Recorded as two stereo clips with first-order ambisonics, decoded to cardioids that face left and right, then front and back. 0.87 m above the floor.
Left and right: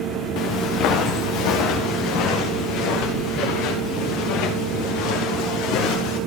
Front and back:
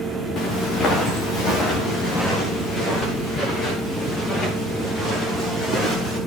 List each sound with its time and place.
0.4 s footsteps: 60° left, 5.5 m; by 6.2 s 70° left, 11 m